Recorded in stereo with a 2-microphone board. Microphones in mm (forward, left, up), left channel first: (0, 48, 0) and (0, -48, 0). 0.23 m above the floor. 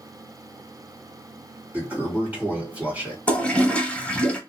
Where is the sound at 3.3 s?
15° left (ahead or behind), 0.9 m.